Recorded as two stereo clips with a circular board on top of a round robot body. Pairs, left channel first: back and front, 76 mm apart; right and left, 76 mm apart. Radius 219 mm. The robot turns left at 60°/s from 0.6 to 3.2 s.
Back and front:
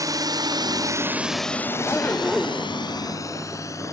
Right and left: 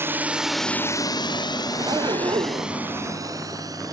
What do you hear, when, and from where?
0.0 s a drone: 35° left; by 3.9 s 130° left
1.7 s a zipper: 125° left; by 2.8 s 65° left